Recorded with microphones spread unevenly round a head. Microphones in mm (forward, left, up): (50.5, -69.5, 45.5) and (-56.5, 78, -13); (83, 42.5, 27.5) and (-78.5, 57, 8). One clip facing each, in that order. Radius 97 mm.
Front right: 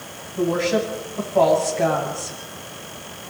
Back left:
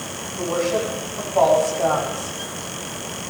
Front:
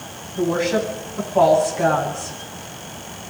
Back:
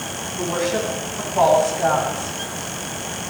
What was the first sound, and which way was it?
A woman speaking, 20° left.